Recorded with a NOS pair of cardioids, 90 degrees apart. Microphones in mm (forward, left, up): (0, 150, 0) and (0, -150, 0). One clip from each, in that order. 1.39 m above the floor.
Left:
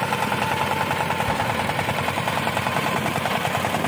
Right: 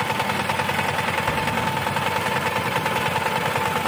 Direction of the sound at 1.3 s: 25° left.